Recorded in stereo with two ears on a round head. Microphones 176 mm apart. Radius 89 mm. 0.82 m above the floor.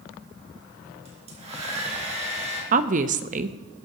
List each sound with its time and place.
1.1 s a hair dryer: 35° right (ahead or behind), 4 m
2.7 s a woman speaking: 40° right (ahead or behind), 0.7 m